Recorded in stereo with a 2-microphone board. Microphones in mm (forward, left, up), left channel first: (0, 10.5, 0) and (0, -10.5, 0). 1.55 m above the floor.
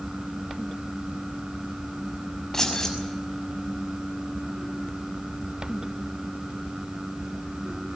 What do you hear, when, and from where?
2.5 s keys jangling: 25° left (ahead or behind), 6.5 m